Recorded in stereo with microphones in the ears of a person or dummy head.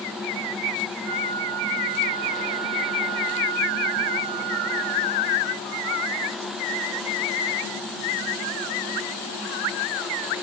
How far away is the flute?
About 5.5 m.